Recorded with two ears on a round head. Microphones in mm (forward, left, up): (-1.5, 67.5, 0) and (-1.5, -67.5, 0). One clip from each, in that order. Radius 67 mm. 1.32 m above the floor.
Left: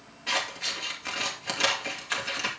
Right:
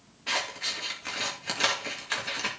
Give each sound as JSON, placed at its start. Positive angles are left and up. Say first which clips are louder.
{"t": 0.3, "sound": "scissors", "louder": "left 1 dB", "side_deg": 5, "distance_m": 3.0}